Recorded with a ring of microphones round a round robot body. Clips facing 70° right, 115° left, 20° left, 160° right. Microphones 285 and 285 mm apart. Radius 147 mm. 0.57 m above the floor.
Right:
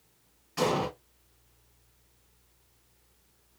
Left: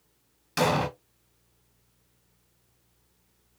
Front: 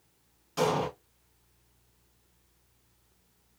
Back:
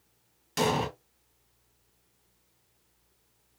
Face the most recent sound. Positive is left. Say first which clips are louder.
# left 2 dB, even
turn(degrees=150)